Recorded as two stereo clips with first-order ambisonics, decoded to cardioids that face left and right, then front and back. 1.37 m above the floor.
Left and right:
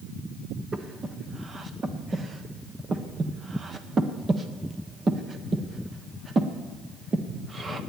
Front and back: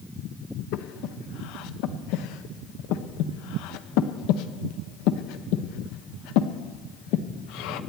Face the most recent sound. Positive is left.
turn(degrees=-20)